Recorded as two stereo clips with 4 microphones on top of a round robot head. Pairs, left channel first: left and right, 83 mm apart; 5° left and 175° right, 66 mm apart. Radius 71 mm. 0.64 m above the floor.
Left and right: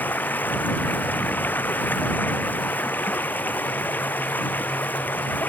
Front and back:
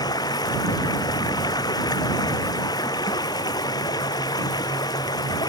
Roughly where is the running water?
Ahead.